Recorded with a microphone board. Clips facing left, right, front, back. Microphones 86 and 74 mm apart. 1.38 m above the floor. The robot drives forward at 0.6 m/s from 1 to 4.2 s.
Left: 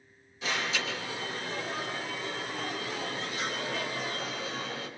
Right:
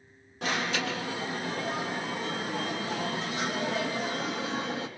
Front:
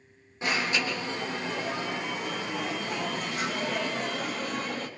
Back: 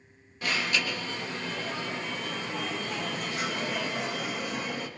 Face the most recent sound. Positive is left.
turn(degrees=-100)